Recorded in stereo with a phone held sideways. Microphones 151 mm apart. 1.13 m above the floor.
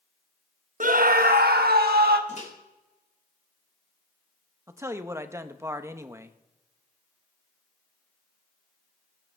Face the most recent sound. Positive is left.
turn(degrees=-20)  # may be behind; listen again after turning